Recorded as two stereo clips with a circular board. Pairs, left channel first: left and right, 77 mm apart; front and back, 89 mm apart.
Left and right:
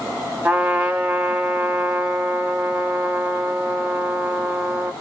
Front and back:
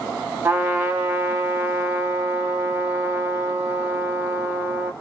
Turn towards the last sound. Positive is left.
turn(degrees=-140)